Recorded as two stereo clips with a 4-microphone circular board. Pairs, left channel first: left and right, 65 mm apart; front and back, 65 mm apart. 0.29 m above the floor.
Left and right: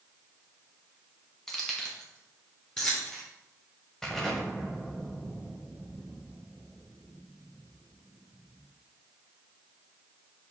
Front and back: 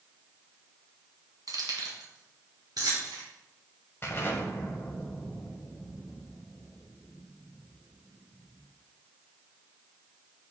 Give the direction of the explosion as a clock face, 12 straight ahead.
12 o'clock.